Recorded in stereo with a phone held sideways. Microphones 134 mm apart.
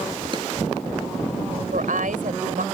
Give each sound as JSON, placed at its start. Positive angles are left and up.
{"t": 0.3, "sound": "a drawer", "side_deg": -35}
{"t": 1.7, "sound": "a woman speaking", "side_deg": -85}